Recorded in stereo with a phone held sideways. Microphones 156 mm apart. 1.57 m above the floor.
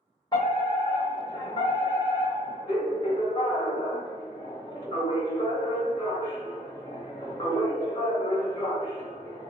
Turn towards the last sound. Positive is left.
turn(degrees=30)  # may be behind; listen again after turning